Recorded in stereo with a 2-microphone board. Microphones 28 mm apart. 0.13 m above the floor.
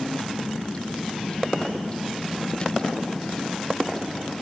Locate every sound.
0.0 s a vehicle: 35° left (ahead or behind); by 4.4 s 25° left (ahead or behind)